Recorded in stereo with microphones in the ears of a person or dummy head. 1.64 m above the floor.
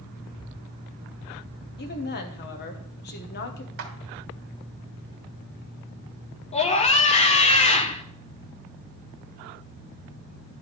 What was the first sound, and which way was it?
A woman speaking, 50° left (ahead or behind).